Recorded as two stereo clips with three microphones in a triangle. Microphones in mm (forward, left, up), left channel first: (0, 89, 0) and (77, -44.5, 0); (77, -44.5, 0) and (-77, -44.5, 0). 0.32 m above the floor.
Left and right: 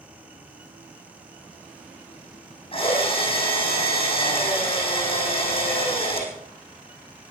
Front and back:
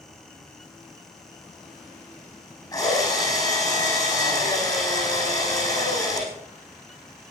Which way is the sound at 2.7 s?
65° left.